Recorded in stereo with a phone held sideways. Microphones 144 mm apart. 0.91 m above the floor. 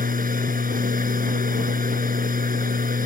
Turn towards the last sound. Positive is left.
turn(degrees=-80)